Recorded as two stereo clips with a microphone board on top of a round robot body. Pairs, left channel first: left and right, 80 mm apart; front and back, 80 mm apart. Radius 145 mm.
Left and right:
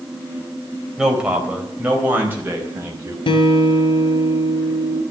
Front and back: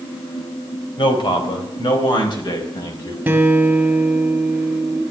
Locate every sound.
1.0 s a man speaking: 10° right, 4 m; by 3.2 s 35° right, 5 m
3.3 s a guitar: 105° left, 2.5 m